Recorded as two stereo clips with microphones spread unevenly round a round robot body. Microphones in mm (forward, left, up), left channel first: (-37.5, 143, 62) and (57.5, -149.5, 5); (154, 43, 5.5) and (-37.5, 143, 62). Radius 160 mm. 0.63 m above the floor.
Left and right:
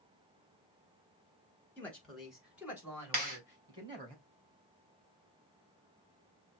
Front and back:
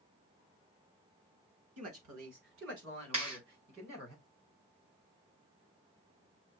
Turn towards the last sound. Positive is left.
turn(degrees=-135)